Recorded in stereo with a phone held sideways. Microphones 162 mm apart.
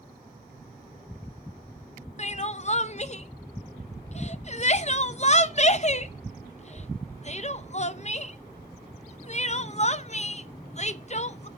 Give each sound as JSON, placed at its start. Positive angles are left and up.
{"t": 2.2, "sound": "crying", "side_deg": 45, "distance_m": 0.6}